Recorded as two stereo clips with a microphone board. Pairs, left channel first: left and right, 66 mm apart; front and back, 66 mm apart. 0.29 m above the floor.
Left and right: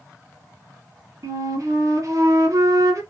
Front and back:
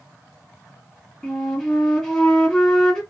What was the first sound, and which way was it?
A flute, 85° right.